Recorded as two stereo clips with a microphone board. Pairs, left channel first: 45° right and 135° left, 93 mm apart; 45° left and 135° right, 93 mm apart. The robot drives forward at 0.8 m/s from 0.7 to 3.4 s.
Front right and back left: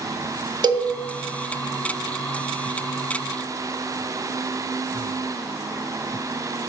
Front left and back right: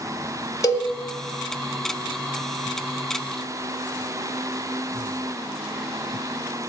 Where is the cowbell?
95° left, 0.8 m; by 0.9 s 110° left, 0.8 m.